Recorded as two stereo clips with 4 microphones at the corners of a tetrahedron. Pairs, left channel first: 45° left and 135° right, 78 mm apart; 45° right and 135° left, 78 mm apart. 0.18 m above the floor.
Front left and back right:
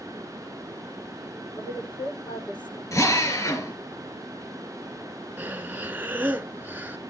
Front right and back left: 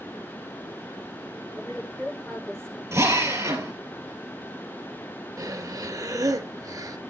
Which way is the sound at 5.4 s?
160° left.